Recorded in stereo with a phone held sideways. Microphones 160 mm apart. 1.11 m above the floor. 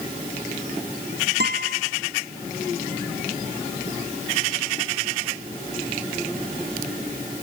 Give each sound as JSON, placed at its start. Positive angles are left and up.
{"t": 1.4, "sound": "a guitar", "side_deg": -75, "distance_m": 1.2}